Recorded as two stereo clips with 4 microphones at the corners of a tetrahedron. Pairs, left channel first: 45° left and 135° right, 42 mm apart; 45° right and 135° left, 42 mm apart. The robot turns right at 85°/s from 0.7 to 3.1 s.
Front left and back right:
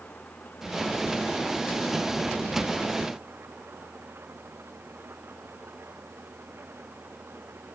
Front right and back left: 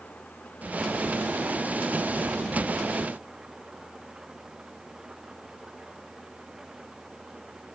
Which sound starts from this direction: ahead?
An engine running, at 0.0 s.